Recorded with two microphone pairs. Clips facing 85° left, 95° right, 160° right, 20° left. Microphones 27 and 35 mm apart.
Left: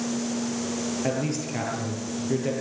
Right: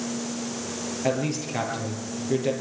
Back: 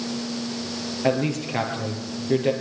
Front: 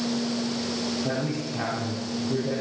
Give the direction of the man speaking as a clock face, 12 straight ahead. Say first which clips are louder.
Right 5 dB, back 5 dB; 6 o'clock.